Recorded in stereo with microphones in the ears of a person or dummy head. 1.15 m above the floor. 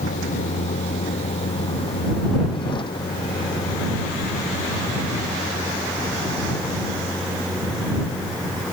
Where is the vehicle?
40° left (ahead or behind); by 8.7 s 5° left (ahead or behind).